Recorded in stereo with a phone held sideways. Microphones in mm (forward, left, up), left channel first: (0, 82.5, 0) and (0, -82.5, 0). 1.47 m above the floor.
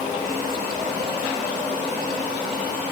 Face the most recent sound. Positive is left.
No sound to turn to.